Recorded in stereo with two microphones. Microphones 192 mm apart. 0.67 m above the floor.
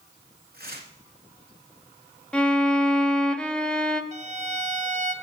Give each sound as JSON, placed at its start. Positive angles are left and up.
{"t": 0.5, "sound": "tearing paper", "side_deg": -60, "distance_m": 2.0}
{"t": 2.3, "sound": "a violin", "side_deg": 5, "distance_m": 0.6}
{"t": 4.1, "sound": "a violin", "side_deg": -40, "distance_m": 0.7}